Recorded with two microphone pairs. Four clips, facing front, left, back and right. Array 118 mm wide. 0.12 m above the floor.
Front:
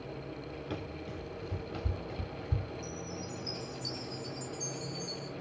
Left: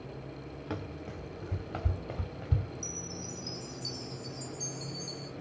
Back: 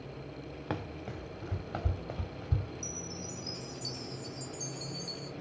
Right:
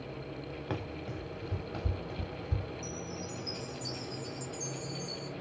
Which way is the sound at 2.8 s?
Straight ahead.